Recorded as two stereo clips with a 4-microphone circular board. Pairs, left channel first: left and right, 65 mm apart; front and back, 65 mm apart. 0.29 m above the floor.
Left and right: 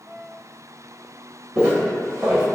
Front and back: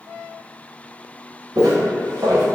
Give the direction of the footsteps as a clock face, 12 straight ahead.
5 o'clock.